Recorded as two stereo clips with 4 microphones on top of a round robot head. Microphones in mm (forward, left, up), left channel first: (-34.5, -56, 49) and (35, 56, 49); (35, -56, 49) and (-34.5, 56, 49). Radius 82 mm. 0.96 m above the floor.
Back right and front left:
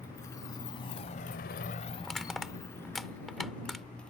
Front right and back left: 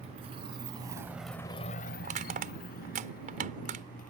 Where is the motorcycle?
165° left; by 4.1 s 40° right.